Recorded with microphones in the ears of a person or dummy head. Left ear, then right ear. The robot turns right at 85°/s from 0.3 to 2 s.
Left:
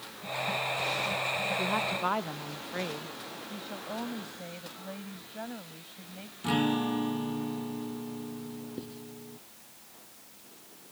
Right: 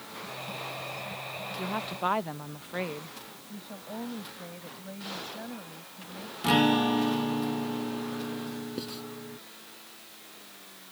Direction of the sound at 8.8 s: 45° right (ahead or behind).